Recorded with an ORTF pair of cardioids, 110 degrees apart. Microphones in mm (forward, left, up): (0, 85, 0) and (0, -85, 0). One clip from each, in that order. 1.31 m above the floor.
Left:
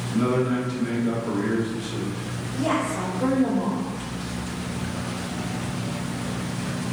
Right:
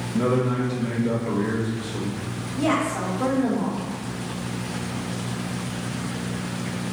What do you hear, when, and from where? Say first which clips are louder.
0.1 s a man speaking: even; 30° left, 1.0 m
2.5 s a woman speaking: right 2 dB; 25° right, 1.0 m